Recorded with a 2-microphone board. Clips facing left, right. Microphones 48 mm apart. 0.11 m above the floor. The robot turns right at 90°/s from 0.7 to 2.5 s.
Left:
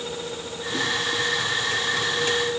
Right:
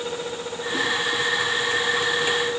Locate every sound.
Only background noise.